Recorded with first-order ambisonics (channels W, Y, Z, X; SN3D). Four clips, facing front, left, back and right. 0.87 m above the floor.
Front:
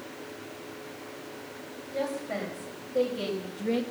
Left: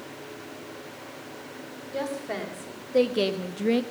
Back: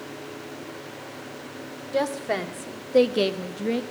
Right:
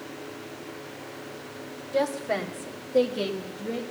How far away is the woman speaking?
About 2.5 m.